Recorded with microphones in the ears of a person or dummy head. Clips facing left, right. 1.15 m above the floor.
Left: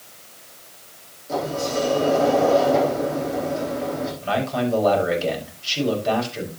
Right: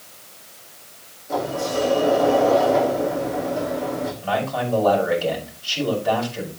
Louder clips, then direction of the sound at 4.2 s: Left 2 dB; 30° left (ahead or behind).